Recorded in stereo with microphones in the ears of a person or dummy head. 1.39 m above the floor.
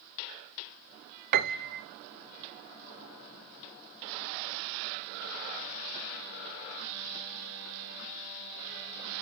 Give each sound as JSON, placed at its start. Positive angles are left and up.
{"t": 1.3, "sound": "a piano", "side_deg": -50, "distance_m": 0.8}